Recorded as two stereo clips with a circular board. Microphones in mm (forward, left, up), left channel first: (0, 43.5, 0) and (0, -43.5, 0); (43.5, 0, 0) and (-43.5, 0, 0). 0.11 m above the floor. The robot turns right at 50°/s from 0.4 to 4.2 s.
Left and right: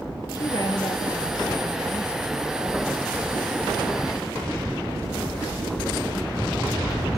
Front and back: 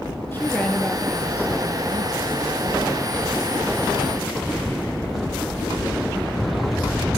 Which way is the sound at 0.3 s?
60° left.